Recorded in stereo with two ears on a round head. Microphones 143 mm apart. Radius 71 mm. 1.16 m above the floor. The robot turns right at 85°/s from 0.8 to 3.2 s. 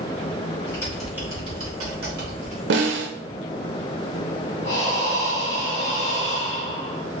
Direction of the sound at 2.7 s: 105° right.